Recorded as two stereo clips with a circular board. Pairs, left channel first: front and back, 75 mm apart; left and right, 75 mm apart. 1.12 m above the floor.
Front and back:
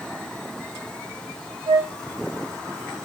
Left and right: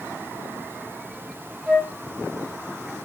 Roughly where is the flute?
Behind.